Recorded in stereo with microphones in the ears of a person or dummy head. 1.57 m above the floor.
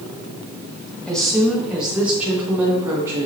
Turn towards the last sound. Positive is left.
turn(degrees=-15)  # may be behind; listen again after turning